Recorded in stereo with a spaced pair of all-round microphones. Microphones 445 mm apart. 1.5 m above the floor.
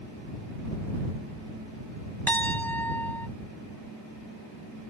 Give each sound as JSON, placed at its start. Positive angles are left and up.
{"t": 2.3, "sound": "a piano", "side_deg": 5}